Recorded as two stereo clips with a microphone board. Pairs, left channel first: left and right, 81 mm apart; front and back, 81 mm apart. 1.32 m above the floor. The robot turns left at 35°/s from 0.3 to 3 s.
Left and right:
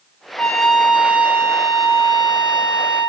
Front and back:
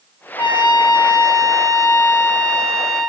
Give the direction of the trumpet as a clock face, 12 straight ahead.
12 o'clock.